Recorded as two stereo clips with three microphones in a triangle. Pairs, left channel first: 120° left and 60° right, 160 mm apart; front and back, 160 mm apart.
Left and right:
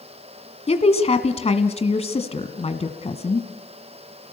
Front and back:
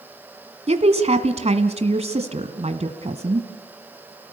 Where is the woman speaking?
150° left, 1.6 m.